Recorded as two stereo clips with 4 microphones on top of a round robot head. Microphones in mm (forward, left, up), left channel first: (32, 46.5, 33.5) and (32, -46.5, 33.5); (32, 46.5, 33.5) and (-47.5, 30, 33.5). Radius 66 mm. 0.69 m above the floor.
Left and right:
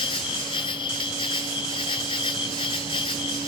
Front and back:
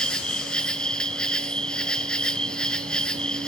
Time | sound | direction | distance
0.0 | an insect | 90° left | 0.8 m